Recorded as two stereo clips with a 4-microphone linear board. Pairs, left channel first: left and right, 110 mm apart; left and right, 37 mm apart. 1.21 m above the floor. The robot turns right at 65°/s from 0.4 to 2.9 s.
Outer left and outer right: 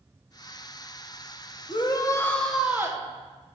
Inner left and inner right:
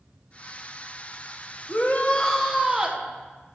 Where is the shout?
125° left, 0.7 m; by 3.0 s 155° right, 0.7 m.